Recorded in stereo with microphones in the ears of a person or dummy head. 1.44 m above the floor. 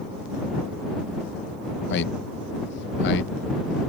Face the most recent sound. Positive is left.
turn(degrees=60)  # may be behind; listen again after turning